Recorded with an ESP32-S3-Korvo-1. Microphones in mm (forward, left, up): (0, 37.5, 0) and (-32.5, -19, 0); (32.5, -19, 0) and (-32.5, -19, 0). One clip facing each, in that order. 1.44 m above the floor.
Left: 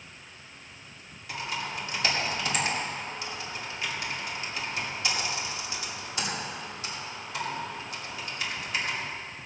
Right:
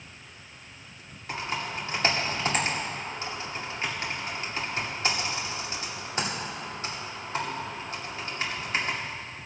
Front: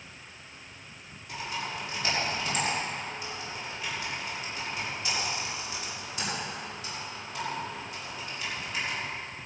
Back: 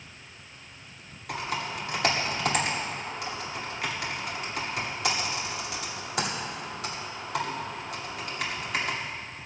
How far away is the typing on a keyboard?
About 2.5 m.